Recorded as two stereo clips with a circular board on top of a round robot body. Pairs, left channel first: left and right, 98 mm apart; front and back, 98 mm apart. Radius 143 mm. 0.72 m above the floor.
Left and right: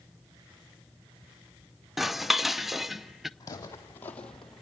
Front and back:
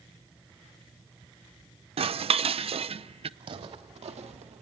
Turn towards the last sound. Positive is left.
turn(degrees=-175)